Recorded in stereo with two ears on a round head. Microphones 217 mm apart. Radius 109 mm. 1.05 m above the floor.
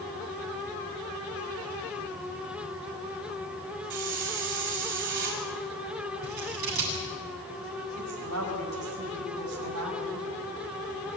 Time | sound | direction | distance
3.9 | a hiss | 50° right (ahead or behind) | 6 m
6.2 | scissors | 90° right | 8 m
8.0 | a woman speaking | 70° right (ahead or behind) | 5.5 m